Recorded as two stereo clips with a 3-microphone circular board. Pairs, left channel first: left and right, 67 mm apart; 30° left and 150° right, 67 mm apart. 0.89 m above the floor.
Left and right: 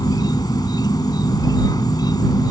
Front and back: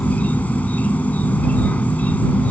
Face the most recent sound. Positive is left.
turn(degrees=95)